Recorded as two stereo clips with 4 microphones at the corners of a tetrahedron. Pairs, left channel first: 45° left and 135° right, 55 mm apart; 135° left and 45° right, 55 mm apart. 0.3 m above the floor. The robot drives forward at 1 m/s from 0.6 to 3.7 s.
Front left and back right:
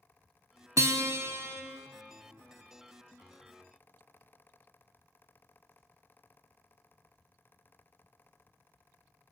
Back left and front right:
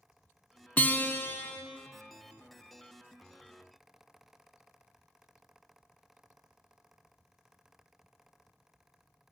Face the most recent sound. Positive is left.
turn(degrees=180)